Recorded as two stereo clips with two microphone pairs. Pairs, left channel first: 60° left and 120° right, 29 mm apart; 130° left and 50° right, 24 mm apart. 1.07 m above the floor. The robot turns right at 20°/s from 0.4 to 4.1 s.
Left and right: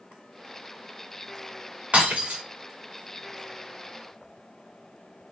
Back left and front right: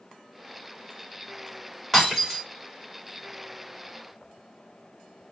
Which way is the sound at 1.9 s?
155° right.